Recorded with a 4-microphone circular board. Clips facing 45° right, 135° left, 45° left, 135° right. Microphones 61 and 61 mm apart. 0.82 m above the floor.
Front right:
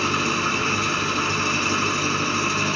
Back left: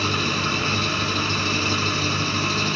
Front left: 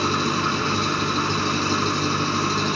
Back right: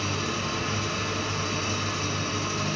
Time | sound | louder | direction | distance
0.0 | an engine running | front right 2 dB, front left 8 dB | 30° left | 2 m